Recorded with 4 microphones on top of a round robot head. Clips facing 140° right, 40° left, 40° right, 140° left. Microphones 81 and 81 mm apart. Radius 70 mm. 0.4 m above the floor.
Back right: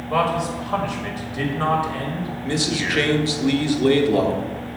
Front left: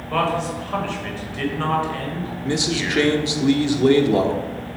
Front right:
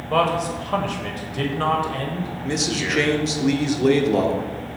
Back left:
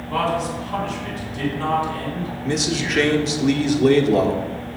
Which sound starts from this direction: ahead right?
A man speaking, at 0.1 s.